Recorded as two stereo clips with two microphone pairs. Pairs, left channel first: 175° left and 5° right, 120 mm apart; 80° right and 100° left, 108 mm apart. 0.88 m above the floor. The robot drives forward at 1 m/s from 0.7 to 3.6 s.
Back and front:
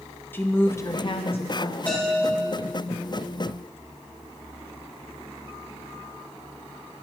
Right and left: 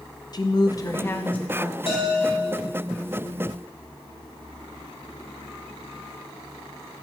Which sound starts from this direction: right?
A bell, at 1.9 s.